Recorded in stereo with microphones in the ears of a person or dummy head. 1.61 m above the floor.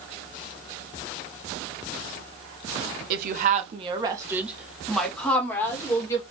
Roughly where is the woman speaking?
Right.